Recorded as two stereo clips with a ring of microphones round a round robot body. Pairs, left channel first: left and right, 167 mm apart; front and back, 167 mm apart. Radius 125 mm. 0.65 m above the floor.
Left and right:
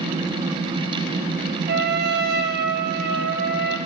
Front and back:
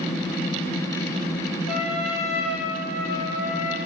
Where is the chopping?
I don't hear chopping.